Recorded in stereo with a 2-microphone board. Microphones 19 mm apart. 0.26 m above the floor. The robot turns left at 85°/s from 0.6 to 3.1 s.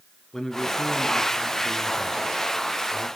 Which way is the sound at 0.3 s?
20° left.